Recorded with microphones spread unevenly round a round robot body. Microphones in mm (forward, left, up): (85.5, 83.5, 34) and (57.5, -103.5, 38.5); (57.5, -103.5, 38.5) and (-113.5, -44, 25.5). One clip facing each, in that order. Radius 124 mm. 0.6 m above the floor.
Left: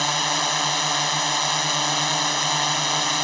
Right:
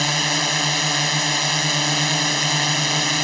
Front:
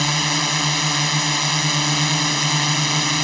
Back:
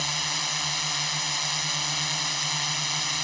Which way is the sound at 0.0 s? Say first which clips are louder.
Right 2 dB, front 13 dB; 30° right.